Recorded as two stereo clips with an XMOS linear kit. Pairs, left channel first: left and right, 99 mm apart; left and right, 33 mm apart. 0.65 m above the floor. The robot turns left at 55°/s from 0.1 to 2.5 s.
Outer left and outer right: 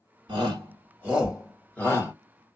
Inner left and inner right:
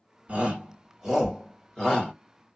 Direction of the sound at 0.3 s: 50° right (ahead or behind).